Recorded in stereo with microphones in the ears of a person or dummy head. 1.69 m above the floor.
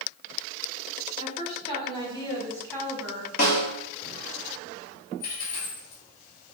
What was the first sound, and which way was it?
A woman speaking, 40° left (ahead or behind).